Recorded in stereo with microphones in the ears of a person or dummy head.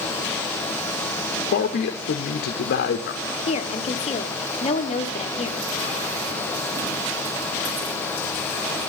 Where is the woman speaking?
35° left (ahead or behind), 1.0 m.